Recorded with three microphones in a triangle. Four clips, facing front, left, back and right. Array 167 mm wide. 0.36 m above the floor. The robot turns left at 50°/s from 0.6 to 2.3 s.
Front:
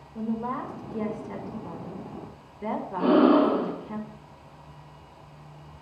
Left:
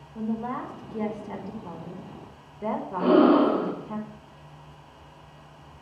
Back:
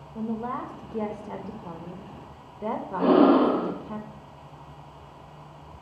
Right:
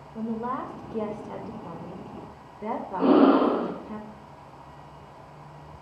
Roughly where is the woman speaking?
Right.